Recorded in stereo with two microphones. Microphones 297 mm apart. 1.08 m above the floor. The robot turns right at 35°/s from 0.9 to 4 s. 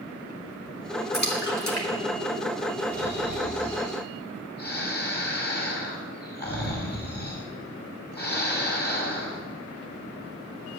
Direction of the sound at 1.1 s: 30° left (ahead or behind).